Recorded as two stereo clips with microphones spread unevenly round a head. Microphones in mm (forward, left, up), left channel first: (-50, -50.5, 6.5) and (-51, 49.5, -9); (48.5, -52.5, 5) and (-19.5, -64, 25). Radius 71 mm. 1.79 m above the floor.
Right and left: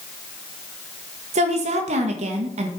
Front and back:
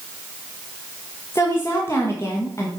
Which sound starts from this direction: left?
A woman speaking, at 1.3 s.